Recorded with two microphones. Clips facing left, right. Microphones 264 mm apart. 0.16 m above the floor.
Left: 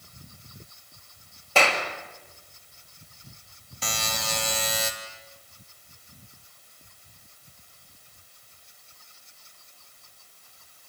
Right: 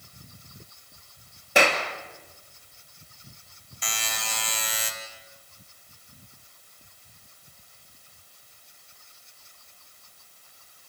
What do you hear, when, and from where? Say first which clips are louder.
1.6 s a clap: right 2 dB; 15° right (ahead or behind), 3 m
3.8 s a buzzer: left 5 dB; 80° left, 2.5 m